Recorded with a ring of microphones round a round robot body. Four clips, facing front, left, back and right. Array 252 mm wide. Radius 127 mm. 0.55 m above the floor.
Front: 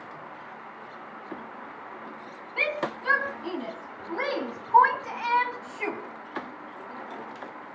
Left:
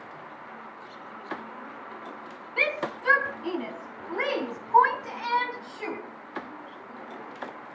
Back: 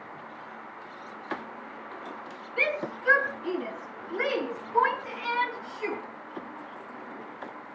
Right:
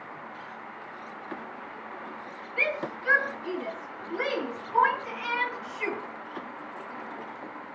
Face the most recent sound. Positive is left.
turn(degrees=15)